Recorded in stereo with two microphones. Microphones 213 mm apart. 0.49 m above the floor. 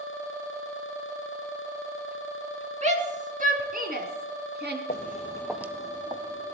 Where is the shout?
35° right (ahead or behind), 4 m; by 4.8 s 55° right (ahead or behind), 4 m.